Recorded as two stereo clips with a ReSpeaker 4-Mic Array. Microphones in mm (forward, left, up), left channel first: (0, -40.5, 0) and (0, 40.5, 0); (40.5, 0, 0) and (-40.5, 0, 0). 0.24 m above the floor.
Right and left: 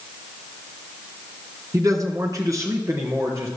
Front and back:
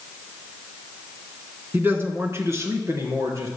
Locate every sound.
1.7 s a man speaking: 120° left, 2 m; by 3.5 s 135° left, 4 m